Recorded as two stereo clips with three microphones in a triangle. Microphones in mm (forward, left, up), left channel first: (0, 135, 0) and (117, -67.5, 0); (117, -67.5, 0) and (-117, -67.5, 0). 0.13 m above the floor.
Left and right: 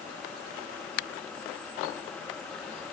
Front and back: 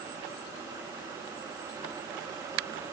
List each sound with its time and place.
Only background noise.